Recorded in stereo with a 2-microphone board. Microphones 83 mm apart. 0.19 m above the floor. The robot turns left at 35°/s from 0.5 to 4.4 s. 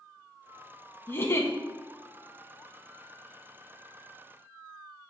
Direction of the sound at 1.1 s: 30° left (ahead or behind).